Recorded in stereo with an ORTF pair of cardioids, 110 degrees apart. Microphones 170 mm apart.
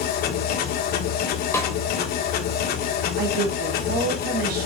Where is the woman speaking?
65° right, 3 m.